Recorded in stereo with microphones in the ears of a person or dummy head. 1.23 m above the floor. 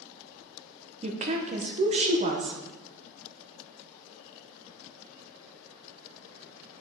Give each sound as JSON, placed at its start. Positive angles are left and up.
{"t": 1.0, "sound": "a woman speaking", "side_deg": -30, "distance_m": 0.9}